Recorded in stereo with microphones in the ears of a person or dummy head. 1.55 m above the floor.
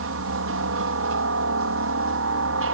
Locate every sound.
0.0 s a helicopter: 65° right (ahead or behind)